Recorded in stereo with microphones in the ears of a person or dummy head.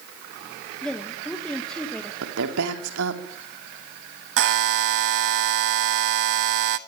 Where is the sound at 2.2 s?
75° right (ahead or behind), 3.5 m.